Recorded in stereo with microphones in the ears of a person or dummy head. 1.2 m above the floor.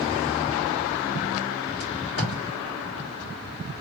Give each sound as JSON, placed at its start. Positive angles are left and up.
{"t": 1.8, "sound": "tape being pulled", "side_deg": 50, "distance_m": 1.5}